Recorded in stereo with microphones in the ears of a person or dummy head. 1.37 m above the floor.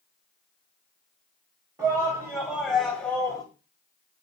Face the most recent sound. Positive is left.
turn(degrees=25)  # may be behind; listen again after turning